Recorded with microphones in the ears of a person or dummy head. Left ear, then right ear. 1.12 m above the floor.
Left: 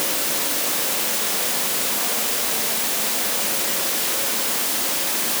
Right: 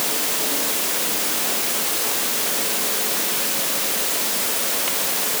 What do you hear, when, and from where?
Only background noise.